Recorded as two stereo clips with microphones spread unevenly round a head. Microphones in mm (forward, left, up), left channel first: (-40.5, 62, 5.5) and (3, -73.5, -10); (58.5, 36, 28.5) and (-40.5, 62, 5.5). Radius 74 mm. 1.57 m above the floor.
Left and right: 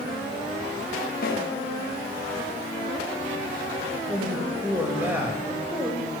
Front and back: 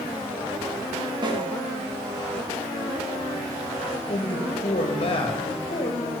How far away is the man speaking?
About 1.8 m.